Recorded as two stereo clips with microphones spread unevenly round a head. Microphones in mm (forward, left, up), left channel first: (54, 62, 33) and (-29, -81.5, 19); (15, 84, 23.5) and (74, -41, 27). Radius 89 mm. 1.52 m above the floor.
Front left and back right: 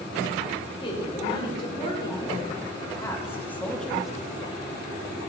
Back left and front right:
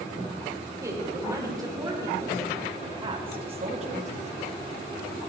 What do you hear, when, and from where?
0.8 s a woman speaking: straight ahead, 5 m; by 4.1 s 30° right, 1.9 m